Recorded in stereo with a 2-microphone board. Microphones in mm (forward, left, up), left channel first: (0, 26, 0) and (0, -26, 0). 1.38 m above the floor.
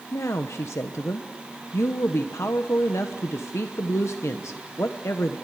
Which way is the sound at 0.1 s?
70° left (ahead or behind).